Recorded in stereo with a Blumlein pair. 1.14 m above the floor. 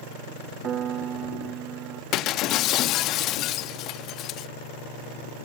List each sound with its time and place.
0.6 s a piano: 25° right
2.1 s breaking glass: 35° left